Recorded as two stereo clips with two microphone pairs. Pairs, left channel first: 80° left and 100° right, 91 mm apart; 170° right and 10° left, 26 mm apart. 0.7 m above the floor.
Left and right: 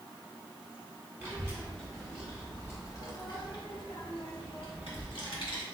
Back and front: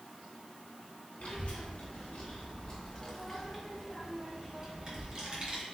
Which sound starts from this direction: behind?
A child speaking, at 1.2 s.